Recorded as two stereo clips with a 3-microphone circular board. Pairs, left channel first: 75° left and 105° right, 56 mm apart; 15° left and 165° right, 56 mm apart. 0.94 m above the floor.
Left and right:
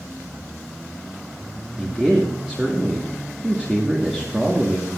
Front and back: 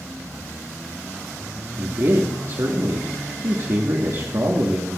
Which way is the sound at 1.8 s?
Straight behind.